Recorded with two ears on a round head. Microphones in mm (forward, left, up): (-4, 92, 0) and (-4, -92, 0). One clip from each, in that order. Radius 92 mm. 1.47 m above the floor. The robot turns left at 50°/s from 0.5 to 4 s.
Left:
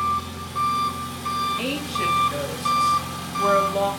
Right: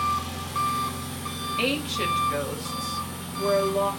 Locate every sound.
0.0 s an engine running: 155° right, 1.5 m; by 4.0 s 30° left, 1.5 m
1.6 s a woman speaking: 135° right, 3.5 m; by 3.9 s 105° left, 3.5 m